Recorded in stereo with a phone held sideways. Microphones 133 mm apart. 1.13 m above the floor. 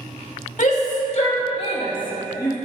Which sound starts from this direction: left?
A shout, at 0.6 s.